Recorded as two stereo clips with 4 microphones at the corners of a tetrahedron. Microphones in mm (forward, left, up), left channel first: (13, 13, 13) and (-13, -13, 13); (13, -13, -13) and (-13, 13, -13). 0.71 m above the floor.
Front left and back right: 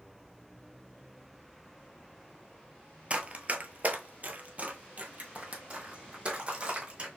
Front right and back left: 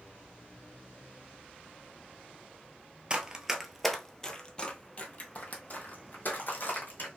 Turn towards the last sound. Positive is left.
turn(degrees=-75)